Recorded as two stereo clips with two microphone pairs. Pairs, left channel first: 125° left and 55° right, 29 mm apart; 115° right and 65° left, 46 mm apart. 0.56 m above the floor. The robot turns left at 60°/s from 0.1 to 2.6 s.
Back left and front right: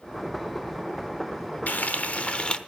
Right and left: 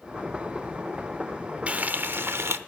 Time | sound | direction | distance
1.7 | frying | 120° left | 0.8 m